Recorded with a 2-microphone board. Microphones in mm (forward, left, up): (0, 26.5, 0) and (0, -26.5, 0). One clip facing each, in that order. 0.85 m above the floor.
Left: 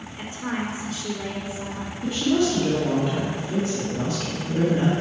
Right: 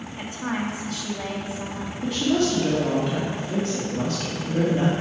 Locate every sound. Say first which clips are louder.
0.2 s a woman speaking: even; 65° right (ahead or behind), 1.7 m
2.0 s a woman speaking: left 1 dB; 60° right (ahead or behind), 2 m